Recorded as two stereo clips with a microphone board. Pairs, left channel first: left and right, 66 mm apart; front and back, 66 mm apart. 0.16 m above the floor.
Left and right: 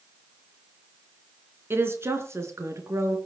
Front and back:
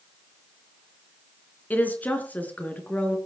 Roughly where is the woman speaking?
Ahead right.